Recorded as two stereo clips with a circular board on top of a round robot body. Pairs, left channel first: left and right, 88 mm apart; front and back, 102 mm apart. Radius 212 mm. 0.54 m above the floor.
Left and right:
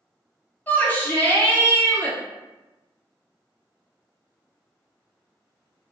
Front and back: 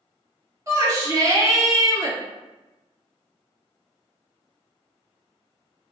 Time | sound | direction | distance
0.7 | a shout | 150° left | 1.2 m